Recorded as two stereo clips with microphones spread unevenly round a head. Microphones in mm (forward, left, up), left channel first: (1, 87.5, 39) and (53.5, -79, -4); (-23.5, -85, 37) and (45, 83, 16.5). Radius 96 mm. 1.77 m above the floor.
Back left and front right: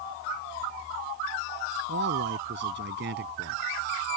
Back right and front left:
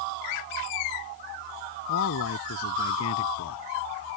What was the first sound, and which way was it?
A man speaking, 105° right.